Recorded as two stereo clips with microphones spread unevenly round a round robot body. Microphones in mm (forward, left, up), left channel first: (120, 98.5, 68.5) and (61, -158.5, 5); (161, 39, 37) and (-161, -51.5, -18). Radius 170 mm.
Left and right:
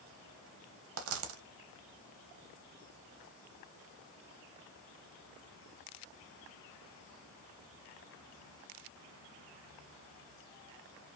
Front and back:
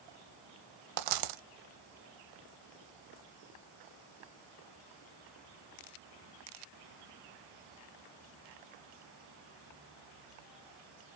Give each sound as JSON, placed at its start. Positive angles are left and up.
{"t": 1.0, "sound": "a dropped coin", "azimuth_deg": -140, "distance_m": 0.8}